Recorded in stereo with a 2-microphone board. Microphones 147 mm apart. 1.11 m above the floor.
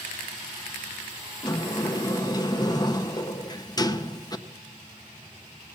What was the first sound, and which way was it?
A sliding door, 25° left (ahead or behind).